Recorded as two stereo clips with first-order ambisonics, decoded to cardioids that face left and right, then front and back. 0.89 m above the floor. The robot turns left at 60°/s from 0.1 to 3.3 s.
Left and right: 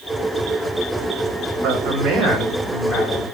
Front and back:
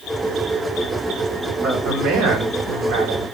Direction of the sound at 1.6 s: 120° right.